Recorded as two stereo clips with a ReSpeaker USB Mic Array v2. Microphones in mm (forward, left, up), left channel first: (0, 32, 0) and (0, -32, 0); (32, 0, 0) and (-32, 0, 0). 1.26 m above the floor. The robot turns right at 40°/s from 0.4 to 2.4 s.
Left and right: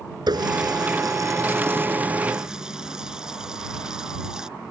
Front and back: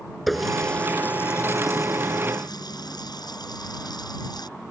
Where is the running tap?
90° right; by 4.5 s 10° right.